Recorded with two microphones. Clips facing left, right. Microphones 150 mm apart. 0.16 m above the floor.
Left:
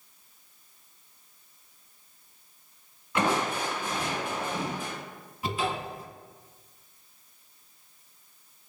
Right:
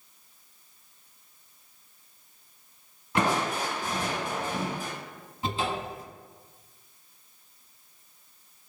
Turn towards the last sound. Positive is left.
turn(degrees=-30)  # may be behind; listen again after turning